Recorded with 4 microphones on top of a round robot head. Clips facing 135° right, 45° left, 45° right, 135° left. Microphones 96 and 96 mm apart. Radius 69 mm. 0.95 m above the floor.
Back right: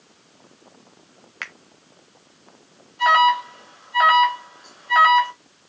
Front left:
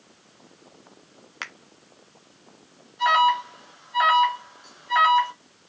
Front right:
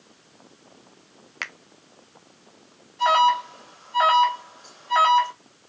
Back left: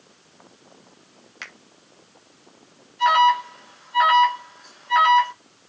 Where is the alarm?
90° right, 3 m.